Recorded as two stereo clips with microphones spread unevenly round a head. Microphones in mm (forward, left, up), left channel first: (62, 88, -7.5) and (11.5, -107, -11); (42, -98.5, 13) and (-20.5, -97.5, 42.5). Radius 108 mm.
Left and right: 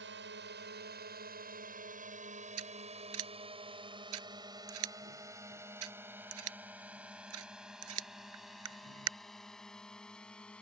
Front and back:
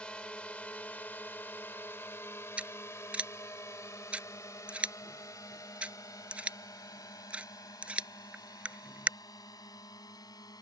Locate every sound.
0.0 s a drone: 75° right; by 10.6 s 10° right
2.6 s scissors: 120° right